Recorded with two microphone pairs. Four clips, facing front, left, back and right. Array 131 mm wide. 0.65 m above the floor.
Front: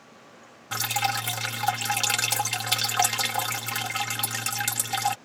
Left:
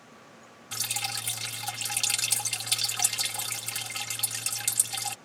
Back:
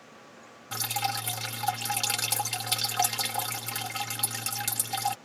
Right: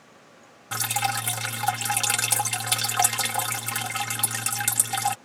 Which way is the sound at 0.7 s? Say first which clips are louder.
Right 12 dB, front 4 dB; 60° right.